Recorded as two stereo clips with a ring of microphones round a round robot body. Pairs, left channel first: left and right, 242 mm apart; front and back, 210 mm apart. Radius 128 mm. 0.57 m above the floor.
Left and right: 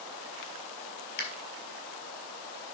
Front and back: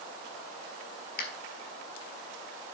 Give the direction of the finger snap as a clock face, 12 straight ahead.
11 o'clock.